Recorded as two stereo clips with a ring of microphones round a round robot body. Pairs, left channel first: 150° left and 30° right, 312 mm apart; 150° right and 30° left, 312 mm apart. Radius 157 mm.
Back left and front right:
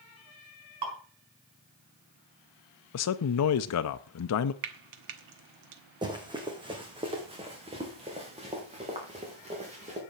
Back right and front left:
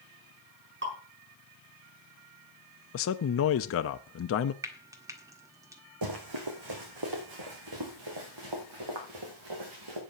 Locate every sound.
0.8 s dripping: 25° right, 5 m
2.9 s a man speaking: 175° left, 0.6 m
4.6 s frying: 50° right, 1.5 m
6.0 s running footsteps: 45° left, 2.5 m; by 10.0 s 40° left, 4.5 m